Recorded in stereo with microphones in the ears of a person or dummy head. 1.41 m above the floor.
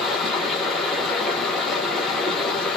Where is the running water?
5° left (ahead or behind), 0.9 m.